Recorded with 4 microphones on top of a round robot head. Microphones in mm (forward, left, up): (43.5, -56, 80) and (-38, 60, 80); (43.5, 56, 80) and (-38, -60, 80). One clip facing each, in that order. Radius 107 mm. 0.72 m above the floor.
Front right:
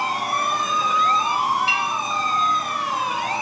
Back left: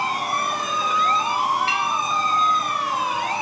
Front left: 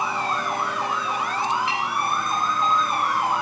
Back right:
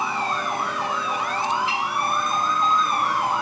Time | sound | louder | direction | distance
1.7 | a clink | back left 1 dB, even | 80° left | 4.5 m